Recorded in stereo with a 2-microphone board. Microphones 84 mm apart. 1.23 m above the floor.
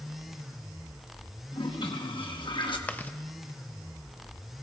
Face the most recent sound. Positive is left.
turn(degrees=20)  # may be behind; listen again after turning